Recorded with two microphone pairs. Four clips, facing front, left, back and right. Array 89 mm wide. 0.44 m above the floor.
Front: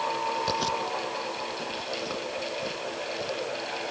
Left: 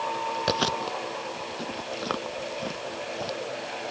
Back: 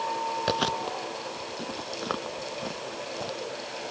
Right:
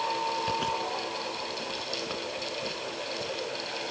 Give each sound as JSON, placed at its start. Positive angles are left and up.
{"t": 0.5, "sound": "chewing", "azimuth_deg": 125}